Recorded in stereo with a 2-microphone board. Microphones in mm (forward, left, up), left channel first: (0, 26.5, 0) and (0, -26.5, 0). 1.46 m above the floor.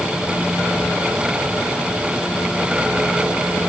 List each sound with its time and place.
Only background noise.